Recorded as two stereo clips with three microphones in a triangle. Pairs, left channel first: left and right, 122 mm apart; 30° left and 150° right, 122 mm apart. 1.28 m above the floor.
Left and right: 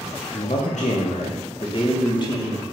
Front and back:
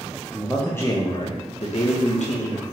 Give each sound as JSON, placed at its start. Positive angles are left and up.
{"t": 0.3, "sound": "a man speaking", "azimuth_deg": 125, "distance_m": 0.6}